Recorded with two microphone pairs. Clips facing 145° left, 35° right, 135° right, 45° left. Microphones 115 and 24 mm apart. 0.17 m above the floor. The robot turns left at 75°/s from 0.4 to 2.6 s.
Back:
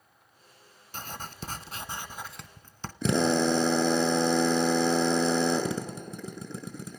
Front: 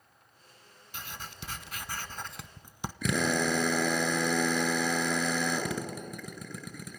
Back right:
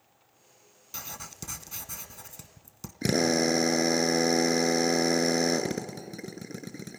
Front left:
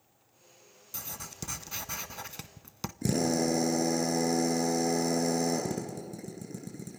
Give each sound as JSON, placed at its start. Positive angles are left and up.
{"t": 0.9, "sound": "writing", "azimuth_deg": 165, "distance_m": 0.8}
{"t": 3.0, "sound": "a drill", "azimuth_deg": -165, "distance_m": 1.6}